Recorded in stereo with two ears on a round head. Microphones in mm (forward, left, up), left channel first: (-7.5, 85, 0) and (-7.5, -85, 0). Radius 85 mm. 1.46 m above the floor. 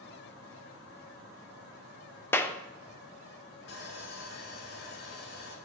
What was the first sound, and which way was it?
A clap, 10° left (ahead or behind).